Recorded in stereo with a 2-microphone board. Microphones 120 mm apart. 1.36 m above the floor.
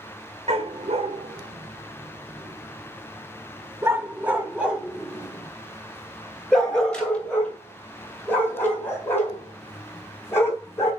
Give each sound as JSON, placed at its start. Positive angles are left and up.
{"t": 0.5, "sound": "a dog barking", "side_deg": -60, "distance_m": 1.8}